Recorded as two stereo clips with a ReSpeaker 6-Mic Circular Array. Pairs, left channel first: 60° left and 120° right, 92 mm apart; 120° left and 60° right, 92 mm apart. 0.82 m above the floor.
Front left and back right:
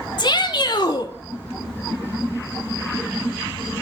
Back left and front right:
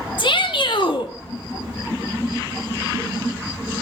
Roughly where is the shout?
Left.